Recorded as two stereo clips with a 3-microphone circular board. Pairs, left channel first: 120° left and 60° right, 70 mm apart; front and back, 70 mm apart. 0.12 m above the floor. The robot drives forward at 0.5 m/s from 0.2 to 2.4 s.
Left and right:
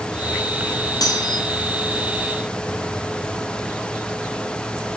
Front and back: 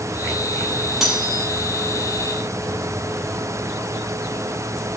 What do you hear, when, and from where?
1.0 s cutlery clinking: 95° left, 2.5 m; by 1.4 s 100° left, 2.5 m